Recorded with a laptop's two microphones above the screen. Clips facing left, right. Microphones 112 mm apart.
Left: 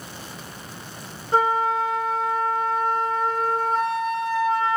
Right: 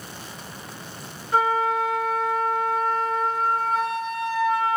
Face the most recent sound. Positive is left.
turn(degrees=30)  # may be behind; listen again after turning